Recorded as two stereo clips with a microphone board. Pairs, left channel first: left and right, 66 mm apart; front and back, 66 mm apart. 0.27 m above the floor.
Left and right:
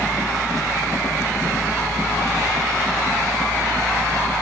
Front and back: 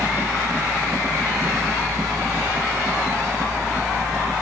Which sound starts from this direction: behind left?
A helicopter, at 0.0 s.